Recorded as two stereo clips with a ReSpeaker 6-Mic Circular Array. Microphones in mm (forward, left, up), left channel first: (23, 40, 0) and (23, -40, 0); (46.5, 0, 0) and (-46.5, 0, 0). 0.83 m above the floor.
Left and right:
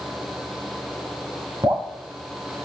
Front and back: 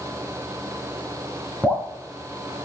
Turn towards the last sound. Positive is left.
turn(degrees=-105)